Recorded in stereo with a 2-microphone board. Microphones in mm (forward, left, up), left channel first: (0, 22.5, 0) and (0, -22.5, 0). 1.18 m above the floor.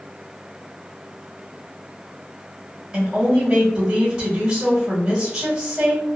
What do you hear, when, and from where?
2.9 s a woman speaking: 15° right (ahead or behind), 1.5 m